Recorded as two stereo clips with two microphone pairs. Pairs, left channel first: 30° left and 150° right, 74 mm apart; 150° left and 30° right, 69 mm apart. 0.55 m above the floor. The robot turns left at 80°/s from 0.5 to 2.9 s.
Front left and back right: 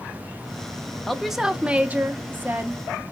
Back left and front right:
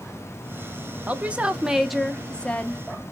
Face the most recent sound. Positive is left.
turn(degrees=165)